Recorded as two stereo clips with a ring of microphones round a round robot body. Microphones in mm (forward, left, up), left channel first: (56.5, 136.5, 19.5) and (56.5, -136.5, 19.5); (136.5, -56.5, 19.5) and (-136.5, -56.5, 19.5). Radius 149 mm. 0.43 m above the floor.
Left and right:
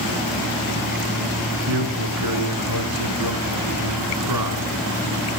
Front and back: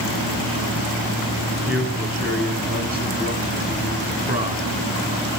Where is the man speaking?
120° right, 6 m.